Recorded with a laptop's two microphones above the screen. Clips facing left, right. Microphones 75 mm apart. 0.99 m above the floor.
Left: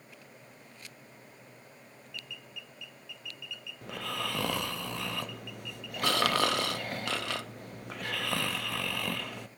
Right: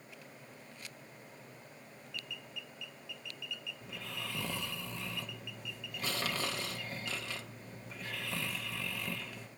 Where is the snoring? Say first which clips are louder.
Left 11 dB; 75° left (ahead or behind), 0.5 m.